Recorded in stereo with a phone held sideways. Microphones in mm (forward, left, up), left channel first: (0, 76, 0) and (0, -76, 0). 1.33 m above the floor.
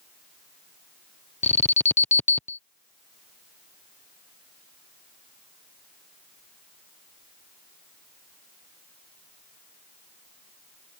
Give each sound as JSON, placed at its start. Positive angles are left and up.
{"t": 1.4, "sound": "an alarm", "side_deg": 45}